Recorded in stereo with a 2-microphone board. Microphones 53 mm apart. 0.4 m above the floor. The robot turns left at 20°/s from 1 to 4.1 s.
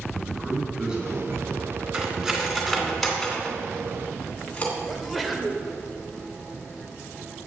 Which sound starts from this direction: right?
Cutlery clinking, at 1.9 s.